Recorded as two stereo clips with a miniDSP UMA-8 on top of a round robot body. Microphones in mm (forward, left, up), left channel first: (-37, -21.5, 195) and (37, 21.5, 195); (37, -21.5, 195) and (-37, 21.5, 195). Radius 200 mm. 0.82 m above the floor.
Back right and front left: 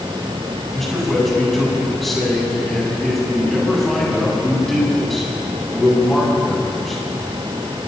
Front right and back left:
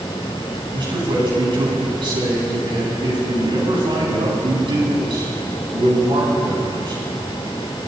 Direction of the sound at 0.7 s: 120° left.